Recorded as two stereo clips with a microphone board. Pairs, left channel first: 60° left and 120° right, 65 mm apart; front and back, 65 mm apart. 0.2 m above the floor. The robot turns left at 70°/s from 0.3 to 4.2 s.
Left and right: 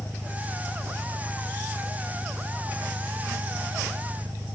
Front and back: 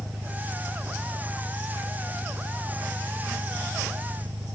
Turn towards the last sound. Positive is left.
turn(degrees=-155)